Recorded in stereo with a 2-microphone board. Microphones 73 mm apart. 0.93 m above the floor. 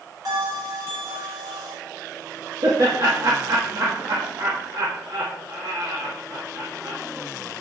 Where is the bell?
65° right (ahead or behind), 5 m.